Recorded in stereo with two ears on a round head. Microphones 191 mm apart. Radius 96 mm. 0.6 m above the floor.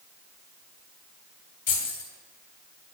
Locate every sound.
1.7 s keys jangling: 40° left (ahead or behind), 3 m